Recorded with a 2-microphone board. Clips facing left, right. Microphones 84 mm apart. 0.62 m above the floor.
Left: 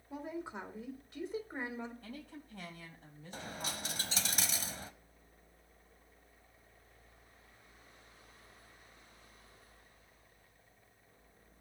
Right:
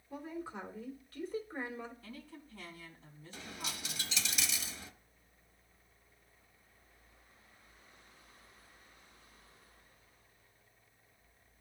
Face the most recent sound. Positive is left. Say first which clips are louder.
# left 3 dB
turn(degrees=45)  # may be behind; listen again after turning